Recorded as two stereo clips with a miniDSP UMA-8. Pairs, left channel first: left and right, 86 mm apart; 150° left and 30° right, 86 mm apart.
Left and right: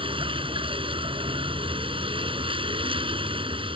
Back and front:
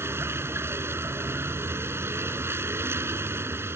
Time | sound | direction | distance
0.0 | a vehicle | 90° right | ?